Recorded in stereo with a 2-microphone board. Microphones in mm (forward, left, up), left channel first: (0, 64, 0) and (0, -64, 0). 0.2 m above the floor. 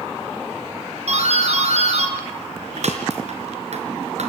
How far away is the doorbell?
About 4.5 m.